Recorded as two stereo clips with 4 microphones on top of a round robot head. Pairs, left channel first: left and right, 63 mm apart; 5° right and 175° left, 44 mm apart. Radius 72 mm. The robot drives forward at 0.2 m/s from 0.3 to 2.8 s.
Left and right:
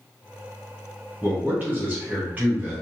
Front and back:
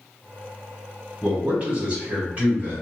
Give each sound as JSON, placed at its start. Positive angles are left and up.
{"t": 1.2, "sound": "a man speaking", "azimuth_deg": -135, "distance_m": 1.3}